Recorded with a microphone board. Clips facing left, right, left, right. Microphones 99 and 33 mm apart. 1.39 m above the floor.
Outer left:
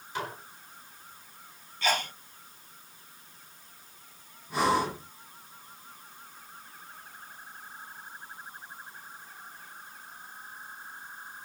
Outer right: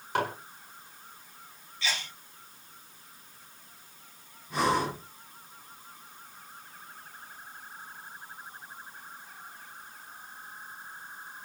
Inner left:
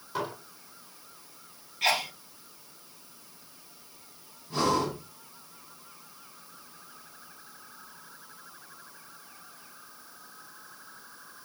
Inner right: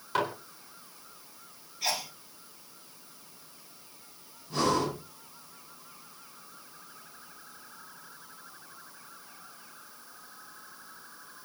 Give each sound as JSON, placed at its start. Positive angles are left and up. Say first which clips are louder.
{"t": 0.1, "sound": "dishes clattering", "louder": "outer right 6 dB, inner right 4 dB", "side_deg": -70, "distance_m": 4.0}
{"t": 1.8, "sound": "a sneeze", "louder": "outer left 7 dB, inner left 7 dB", "side_deg": 50, "distance_m": 0.8}
{"t": 4.5, "sound": "breathing", "louder": "outer left 1 dB, inner left 1 dB", "side_deg": 5, "distance_m": 8.5}